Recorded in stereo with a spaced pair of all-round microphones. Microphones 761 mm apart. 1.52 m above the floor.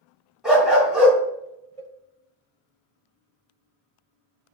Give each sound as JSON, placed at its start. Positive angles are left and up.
{"t": 0.4, "sound": "a dog barking", "side_deg": 0, "distance_m": 3.0}
{"t": 1.8, "sound": "a cowbell", "side_deg": -45, "distance_m": 0.9}